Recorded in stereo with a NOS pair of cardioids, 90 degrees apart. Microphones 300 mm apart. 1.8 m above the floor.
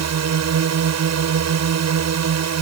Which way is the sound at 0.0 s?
60° right.